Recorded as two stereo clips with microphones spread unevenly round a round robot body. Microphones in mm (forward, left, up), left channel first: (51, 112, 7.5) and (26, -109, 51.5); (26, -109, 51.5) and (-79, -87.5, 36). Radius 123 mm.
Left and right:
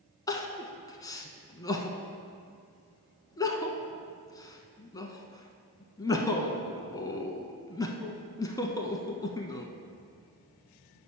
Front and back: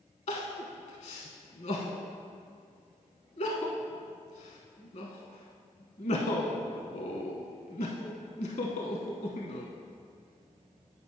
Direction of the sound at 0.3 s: Straight ahead.